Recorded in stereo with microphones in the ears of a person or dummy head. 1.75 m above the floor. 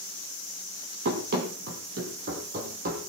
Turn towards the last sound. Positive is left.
turn(degrees=-45)  # may be behind; listen again after turning